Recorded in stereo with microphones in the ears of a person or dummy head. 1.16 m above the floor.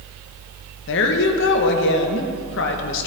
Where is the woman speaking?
65° left (ahead or behind), 1.0 m.